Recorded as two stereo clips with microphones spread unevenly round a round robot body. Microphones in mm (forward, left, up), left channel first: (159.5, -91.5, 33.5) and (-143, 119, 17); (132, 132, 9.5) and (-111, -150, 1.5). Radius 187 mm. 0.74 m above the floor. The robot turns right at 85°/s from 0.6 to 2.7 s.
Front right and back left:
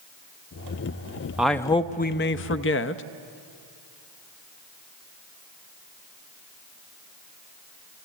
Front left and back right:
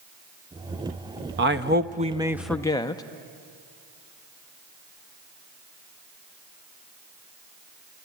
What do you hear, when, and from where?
1.4 s a man speaking: 135° right, 0.6 m; by 3.0 s 25° right, 0.6 m